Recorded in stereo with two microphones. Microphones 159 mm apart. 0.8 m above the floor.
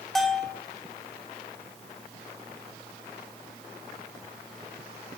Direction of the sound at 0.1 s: Centre (ahead or behind).